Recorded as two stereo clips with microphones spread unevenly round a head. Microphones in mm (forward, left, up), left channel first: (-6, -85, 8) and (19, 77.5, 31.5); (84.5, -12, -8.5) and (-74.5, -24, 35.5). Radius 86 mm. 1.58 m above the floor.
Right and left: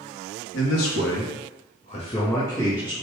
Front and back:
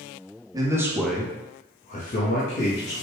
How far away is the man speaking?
About 0.9 m.